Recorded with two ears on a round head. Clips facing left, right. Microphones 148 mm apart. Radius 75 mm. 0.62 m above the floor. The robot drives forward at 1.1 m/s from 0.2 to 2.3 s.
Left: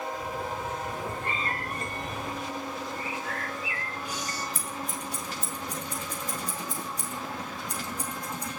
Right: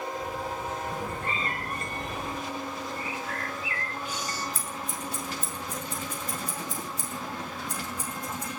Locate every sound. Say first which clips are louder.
0.9 s a cat meowing: right 1 dB; 65° right (ahead or behind), 7.5 m; by 2.4 s 55° right (ahead or behind), 8.5 m
3.0 s a bird: even; 25° right (ahead or behind), 4 m
4.5 s scissors: even; 15° left (ahead or behind), 6.5 m